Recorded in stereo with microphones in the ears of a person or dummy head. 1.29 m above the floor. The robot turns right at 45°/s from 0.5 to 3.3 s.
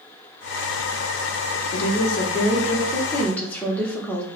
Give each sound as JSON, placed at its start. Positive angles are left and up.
{"t": 1.7, "sound": "a woman speaking", "azimuth_deg": 100, "distance_m": 0.9}